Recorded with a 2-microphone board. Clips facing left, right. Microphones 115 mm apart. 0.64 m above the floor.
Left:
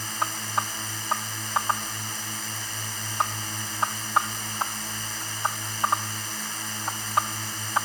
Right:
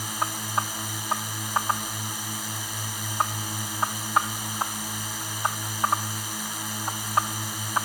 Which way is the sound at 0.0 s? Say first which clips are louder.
Even; 10° right (ahead or behind).